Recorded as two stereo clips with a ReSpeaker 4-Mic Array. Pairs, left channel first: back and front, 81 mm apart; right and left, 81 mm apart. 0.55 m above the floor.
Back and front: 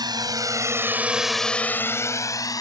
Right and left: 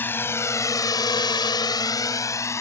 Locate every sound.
0.0 s a drone: 25° right; by 2.6 s 140° right